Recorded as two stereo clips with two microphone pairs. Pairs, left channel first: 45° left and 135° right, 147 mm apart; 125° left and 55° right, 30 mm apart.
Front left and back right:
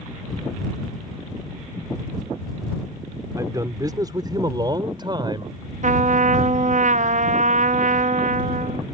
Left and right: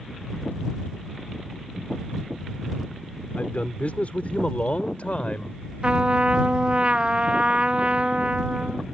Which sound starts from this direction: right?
A trumpet, at 5.8 s.